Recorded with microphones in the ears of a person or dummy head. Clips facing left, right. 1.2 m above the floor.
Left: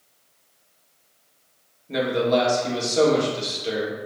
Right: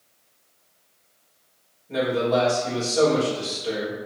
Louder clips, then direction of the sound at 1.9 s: Left 1 dB; 30° left (ahead or behind).